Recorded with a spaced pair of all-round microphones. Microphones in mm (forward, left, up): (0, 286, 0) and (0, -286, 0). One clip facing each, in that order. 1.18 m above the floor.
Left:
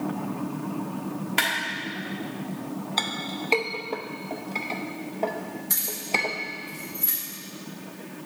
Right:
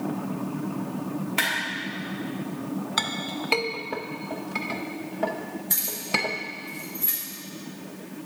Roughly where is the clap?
Left.